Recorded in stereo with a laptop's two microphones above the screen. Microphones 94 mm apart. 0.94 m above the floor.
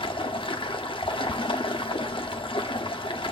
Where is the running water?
65° left (ahead or behind), 1.1 m.